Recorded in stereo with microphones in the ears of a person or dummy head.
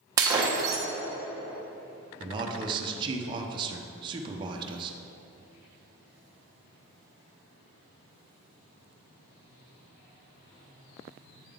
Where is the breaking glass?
25° right (ahead or behind), 0.8 m.